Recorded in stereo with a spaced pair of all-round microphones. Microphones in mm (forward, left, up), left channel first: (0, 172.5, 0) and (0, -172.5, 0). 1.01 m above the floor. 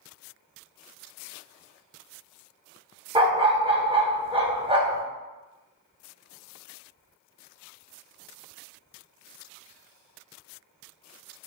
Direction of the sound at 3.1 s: 15° right (ahead or behind).